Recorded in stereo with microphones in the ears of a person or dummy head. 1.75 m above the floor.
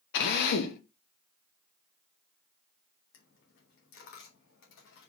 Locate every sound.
0.1 s a drill: 70° left (ahead or behind), 1.8 m
3.1 s a dropped coin: 60° left (ahead or behind), 2.5 m